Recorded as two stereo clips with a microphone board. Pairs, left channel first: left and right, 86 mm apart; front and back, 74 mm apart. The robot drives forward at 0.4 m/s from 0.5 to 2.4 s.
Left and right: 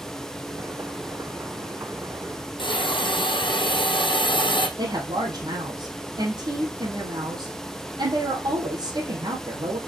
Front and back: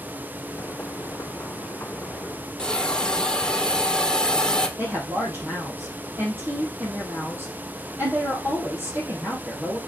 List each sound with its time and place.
2.6 s a hiss: 80° left, 1.4 m
4.8 s a woman speaking: 120° right, 3 m